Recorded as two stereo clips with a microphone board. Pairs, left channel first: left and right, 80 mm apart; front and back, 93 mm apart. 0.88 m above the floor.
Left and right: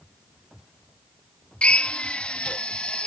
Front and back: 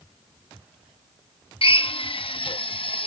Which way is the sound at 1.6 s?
15° left.